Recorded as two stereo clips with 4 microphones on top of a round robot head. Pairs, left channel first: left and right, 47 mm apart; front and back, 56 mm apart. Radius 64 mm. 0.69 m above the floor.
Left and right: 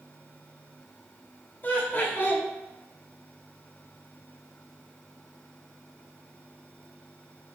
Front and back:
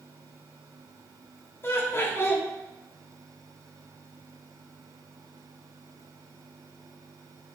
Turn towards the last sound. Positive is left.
turn(degrees=45)